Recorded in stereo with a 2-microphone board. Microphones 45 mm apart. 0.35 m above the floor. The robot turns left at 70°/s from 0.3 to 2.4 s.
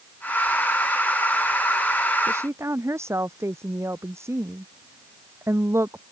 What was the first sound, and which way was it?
A woman speaking, 80° right.